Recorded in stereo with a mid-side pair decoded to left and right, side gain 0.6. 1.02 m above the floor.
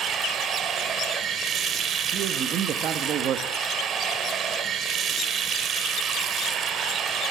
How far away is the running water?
About 1.6 m.